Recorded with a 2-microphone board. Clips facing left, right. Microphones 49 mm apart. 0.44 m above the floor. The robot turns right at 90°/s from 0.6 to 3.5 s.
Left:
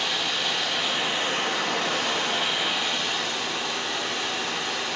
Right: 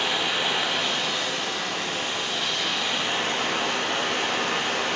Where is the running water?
25° right, 5.5 m; by 5.0 s 120° right, 5.5 m.